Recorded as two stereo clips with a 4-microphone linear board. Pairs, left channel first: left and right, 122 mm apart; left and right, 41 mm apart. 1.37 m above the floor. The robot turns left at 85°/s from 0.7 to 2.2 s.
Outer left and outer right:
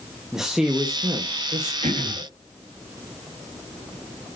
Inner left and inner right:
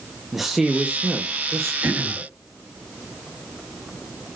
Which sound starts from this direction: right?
Throat clearing, at 1.8 s.